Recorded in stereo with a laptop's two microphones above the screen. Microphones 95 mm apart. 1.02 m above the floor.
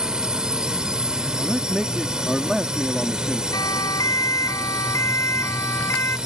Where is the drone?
5° right (ahead or behind).